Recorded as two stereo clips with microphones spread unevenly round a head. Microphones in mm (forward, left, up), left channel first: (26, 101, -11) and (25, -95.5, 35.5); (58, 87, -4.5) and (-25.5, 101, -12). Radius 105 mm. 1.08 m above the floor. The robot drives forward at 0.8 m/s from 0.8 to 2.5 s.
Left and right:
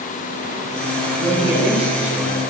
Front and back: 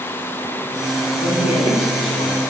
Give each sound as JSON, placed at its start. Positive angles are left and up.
{"t": 1.2, "sound": "a man speaking", "azimuth_deg": -10, "distance_m": 9.0}